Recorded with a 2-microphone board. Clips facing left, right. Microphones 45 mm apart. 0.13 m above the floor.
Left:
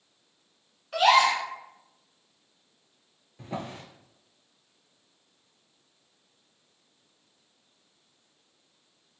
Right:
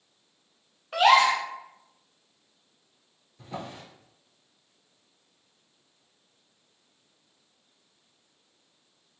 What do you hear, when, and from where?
0.9 s a gasp: 25° right (ahead or behind), 0.5 m
3.4 s a drawer: 50° left (ahead or behind), 0.6 m